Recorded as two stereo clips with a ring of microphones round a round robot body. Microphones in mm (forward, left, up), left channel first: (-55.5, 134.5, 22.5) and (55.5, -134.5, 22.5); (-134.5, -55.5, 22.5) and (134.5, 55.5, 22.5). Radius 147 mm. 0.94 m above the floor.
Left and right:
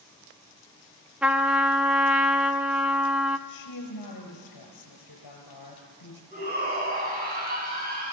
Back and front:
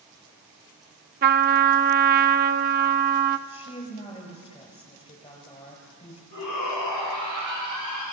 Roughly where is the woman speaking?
Behind left.